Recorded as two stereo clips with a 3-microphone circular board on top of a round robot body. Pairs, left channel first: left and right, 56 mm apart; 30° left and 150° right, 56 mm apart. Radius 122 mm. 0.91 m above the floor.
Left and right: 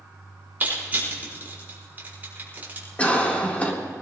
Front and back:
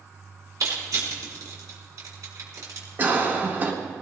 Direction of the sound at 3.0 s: 155° left.